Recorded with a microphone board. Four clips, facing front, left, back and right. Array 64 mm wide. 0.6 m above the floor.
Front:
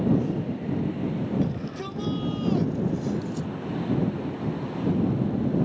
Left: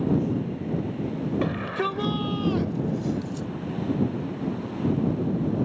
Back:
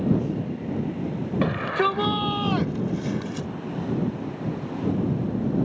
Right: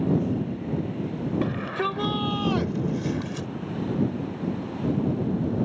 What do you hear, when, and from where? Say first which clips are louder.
1.4 s a shout: even, back 8 dB; 170° left; by 3.5 s 130° right